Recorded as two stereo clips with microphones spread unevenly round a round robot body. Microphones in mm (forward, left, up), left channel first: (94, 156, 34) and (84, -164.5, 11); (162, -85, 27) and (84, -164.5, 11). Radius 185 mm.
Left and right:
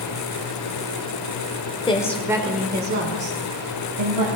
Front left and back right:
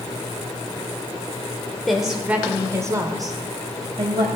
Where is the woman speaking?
145° left, 0.8 m; by 4.3 s 90° right, 1.7 m.